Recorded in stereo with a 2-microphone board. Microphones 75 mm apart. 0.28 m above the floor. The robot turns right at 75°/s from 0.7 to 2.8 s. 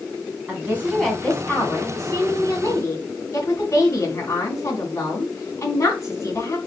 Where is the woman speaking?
30° right, 2 m; by 6.6 s 130° left, 2 m.